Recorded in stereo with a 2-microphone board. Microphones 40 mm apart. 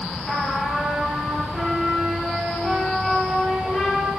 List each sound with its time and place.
0.3 s a trumpet: 15° left (ahead or behind), 4.5 m